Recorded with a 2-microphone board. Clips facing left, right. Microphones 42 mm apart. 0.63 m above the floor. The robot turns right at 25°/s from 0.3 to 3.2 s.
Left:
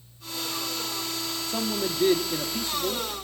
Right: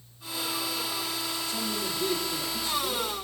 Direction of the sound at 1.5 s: 80° left.